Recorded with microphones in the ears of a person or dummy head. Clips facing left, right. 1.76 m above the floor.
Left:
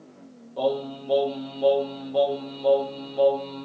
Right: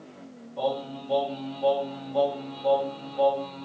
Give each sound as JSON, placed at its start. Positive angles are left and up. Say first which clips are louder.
{"t": 0.6, "sound": "singing", "louder": "left 4 dB", "side_deg": 65, "distance_m": 0.9}